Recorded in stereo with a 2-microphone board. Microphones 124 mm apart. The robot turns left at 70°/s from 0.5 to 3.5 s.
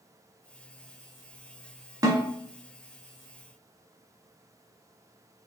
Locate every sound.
2.0 s a snare drum: 35° right (ahead or behind), 1.1 m; by 2.2 s 45° right (ahead or behind), 1.1 m